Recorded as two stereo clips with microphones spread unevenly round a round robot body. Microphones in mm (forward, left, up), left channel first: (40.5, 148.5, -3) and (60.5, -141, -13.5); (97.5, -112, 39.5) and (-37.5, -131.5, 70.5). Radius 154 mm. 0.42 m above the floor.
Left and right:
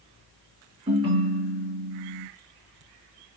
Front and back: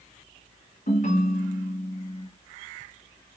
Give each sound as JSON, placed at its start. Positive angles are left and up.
{"t": 0.9, "sound": "a ringtone", "azimuth_deg": -15, "distance_m": 1.9}